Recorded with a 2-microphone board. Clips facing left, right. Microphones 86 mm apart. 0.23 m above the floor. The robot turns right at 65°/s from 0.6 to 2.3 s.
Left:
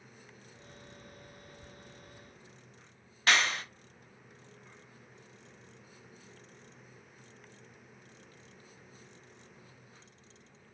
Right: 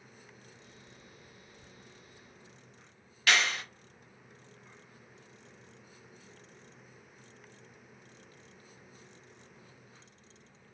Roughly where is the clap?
Left.